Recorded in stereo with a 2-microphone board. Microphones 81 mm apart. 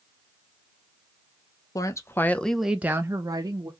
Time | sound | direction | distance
1.8 | a woman speaking | 45° left (ahead or behind) | 0.7 m